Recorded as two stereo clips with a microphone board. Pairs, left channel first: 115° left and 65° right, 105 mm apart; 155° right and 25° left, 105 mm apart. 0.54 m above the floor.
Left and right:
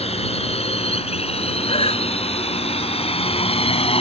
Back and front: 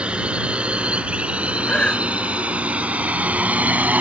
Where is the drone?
100° left; by 4.0 s 95° left.